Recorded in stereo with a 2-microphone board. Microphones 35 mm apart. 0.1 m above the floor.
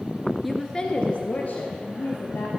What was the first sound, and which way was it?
A woman speaking, centre (ahead or behind).